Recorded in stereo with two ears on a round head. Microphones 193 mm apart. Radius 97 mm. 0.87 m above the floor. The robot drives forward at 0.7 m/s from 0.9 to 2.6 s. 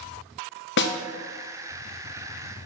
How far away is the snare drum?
About 0.7 m.